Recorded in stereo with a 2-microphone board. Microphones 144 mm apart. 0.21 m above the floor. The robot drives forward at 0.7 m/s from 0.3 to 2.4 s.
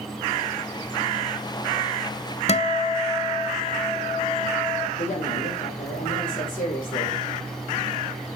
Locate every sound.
2.5 s a guitar: 45° left (ahead or behind), 0.7 m
5.0 s a woman speaking: 70° left (ahead or behind), 5.5 m